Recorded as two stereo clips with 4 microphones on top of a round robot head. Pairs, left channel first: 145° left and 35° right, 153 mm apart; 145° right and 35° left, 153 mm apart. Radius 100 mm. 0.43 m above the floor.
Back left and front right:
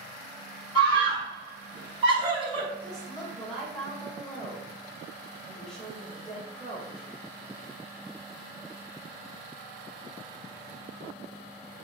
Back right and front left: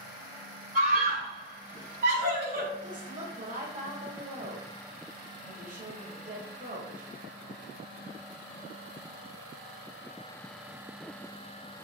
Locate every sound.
0.8 s a scream: 20° left, 3.5 m
2.8 s a woman speaking: 55° left, 1.8 m